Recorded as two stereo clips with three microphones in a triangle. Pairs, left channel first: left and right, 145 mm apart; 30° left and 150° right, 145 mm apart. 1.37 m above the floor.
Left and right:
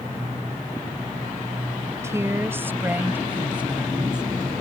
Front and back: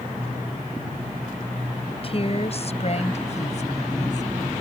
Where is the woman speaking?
20° right; by 4.3 s 5° right.